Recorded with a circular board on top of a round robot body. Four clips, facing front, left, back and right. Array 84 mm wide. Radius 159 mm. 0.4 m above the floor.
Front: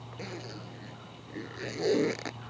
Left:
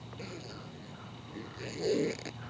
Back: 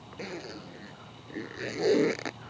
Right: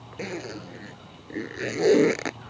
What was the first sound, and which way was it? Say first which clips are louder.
A zipper: right 12 dB, back 3 dB; 100° right.